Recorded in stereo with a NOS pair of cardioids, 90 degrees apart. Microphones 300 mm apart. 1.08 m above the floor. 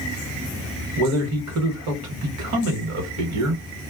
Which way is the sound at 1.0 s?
65° right.